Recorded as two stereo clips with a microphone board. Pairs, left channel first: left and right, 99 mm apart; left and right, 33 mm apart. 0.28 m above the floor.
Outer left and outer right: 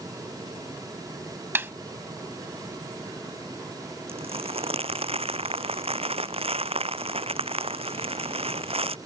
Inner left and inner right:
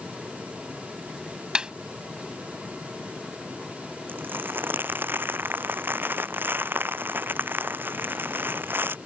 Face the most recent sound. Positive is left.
turn(degrees=-75)  # may be behind; listen again after turning